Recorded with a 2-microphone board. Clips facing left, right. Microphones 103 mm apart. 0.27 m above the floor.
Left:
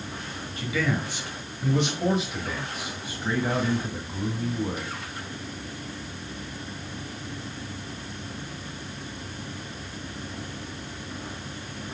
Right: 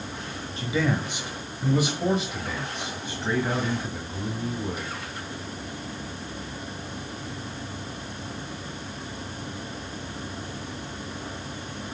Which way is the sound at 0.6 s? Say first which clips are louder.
Right 2 dB; 30° right (ahead or behind).